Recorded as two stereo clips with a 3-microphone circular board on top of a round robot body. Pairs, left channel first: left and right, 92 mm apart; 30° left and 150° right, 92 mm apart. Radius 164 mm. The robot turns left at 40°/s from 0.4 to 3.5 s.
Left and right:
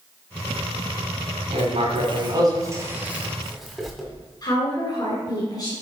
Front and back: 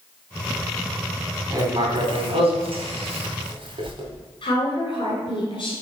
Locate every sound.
1.5 s writing: 95° right, 2 m; by 4.0 s 175° right, 2 m
4.4 s a woman speaking: 55° left, 2.5 m